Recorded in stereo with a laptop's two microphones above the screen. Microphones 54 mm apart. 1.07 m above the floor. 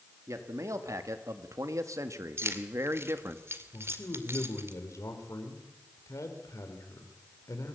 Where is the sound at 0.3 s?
70° right (ahead or behind), 2 m; by 3.4 s 50° right (ahead or behind), 1.8 m.